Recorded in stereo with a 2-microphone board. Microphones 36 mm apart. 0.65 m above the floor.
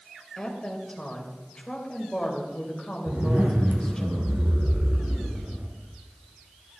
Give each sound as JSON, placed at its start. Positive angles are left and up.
{"t": 0.4, "sound": "a woman speaking", "side_deg": 25, "distance_m": 3.5}
{"t": 3.1, "sound": "a zipper", "side_deg": -75, "distance_m": 2.5}